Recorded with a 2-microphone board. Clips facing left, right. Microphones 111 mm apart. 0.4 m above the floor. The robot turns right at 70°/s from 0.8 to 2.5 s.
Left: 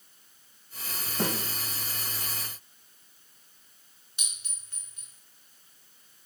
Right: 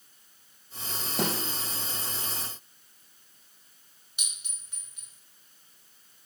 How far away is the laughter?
I don't hear laughter.